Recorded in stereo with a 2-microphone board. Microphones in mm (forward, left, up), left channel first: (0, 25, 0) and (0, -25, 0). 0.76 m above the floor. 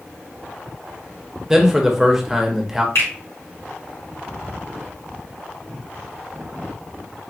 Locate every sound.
1.5 s a man speaking: 5° right (ahead or behind), 0.7 m
3.0 s a finger snap: 70° left (ahead or behind), 2 m